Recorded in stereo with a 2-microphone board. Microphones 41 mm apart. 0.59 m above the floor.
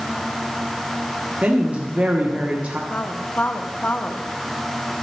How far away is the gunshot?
I don't hear a gunshot.